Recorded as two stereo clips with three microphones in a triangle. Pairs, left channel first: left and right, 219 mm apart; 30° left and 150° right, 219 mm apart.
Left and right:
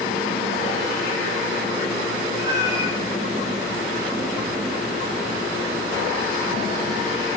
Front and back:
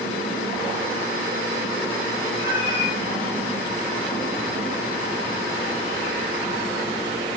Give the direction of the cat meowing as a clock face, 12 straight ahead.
1 o'clock.